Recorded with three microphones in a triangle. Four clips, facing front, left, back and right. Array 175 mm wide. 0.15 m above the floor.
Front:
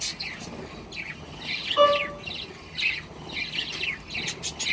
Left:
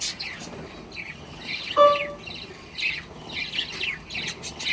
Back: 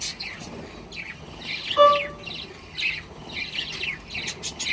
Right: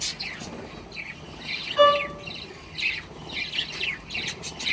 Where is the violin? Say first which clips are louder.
Left 1 dB, back 3 dB; 95° left, 1.9 m.